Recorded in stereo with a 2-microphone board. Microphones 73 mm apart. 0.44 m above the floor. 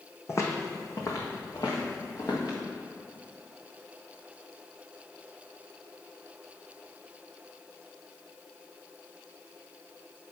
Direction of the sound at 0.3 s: 40° left (ahead or behind).